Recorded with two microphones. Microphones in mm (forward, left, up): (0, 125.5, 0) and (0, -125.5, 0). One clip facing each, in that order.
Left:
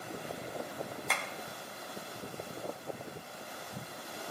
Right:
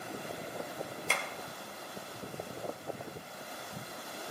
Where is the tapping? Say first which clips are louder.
Right 2 dB; 30° right (ahead or behind), 1.8 m.